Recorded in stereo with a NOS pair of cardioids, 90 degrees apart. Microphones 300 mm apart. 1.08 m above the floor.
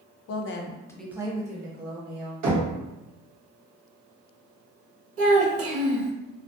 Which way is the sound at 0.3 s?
55° left.